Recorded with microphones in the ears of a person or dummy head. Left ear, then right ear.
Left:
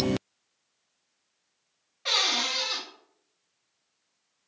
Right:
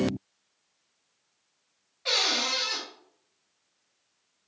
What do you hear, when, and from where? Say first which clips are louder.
2.0 s a cupboard door: even; 15° left (ahead or behind), 1.1 m